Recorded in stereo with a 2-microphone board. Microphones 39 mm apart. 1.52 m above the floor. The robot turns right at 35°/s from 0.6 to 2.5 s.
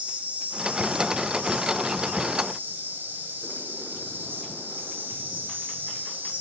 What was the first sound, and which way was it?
An insect, 140° right.